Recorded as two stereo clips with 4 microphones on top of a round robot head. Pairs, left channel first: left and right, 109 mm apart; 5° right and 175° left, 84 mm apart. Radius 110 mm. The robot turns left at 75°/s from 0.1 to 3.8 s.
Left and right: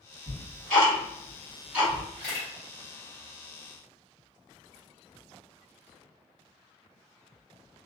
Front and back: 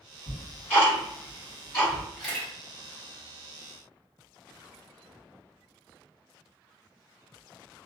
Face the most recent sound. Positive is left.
turn(degrees=-35)